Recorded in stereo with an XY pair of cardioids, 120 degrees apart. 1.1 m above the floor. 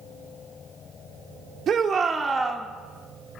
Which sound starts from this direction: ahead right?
A shout, at 1.7 s.